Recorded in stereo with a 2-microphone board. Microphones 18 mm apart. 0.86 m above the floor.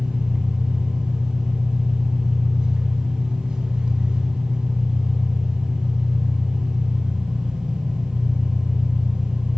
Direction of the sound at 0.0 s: 70° right (ahead or behind).